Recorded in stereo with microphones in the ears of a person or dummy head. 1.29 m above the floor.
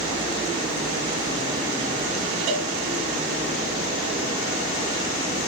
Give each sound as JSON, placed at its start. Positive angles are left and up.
{"t": 2.5, "sound": "a cowbell", "side_deg": -45, "distance_m": 1.7}